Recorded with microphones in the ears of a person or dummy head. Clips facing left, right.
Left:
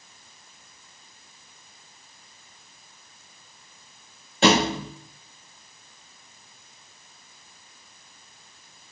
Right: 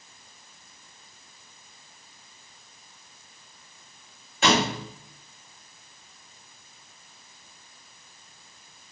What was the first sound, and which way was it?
A thud, 35° left (ahead or behind).